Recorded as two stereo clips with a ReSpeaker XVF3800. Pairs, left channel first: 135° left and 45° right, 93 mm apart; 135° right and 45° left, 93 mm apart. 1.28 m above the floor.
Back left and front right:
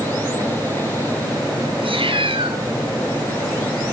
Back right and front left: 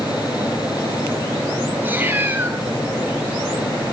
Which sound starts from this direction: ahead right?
A cat meowing, at 1.8 s.